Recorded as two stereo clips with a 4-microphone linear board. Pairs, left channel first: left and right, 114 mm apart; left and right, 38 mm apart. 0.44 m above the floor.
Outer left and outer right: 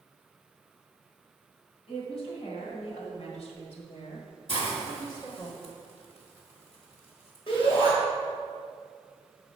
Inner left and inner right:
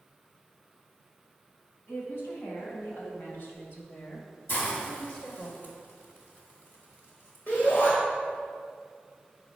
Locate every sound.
1.9 s a woman speaking: 65° left (ahead or behind), 3 m; by 5.5 s 25° left (ahead or behind), 1.5 m
4.5 s a hiss: 60° left (ahead or behind), 2.0 m
7.5 s a shout: 55° left (ahead or behind), 2.5 m